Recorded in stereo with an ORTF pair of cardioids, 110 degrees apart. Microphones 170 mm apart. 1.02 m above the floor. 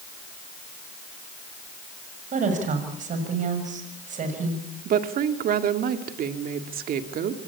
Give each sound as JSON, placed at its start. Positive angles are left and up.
{"t": 2.3, "sound": "a woman speaking", "azimuth_deg": -50, "distance_m": 6.5}
{"t": 4.8, "sound": "a woman speaking", "azimuth_deg": -60, "distance_m": 2.0}